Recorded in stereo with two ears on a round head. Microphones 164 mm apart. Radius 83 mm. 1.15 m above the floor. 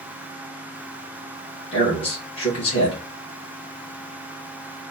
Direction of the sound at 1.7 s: 30° left (ahead or behind).